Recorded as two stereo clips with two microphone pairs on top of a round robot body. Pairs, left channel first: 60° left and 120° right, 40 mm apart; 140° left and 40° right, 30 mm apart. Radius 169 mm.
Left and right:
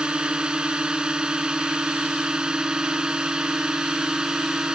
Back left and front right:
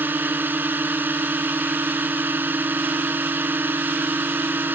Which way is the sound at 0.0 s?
50° right.